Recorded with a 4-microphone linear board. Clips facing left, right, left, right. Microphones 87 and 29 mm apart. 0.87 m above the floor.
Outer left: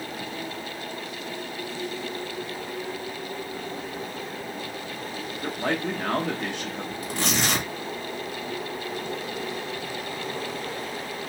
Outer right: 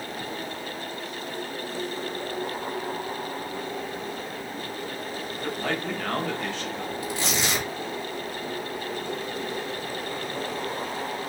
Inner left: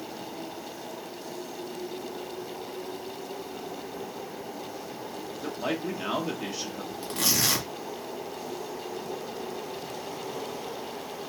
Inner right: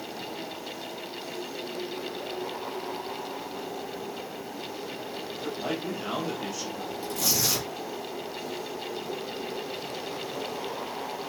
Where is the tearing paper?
45° left (ahead or behind), 2.5 m.